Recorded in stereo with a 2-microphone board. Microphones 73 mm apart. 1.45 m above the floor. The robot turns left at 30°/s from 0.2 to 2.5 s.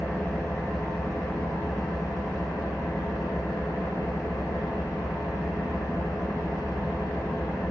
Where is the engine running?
150° left, 0.8 m; by 7.7 s 80° left, 0.8 m.